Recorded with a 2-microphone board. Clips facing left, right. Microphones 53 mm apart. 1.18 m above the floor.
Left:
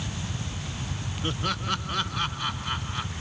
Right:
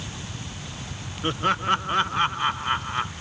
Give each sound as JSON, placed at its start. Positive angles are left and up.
{"t": 1.2, "sound": "laughter", "side_deg": -30}